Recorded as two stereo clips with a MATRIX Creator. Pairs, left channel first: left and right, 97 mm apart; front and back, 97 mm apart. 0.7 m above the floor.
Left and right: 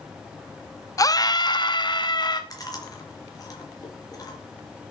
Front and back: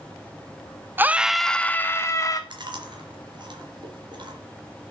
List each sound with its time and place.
1.0 s a scream: 120° left, 0.7 m; by 2.4 s 55° left, 1.2 m
2.5 s chewing: 140° left, 4 m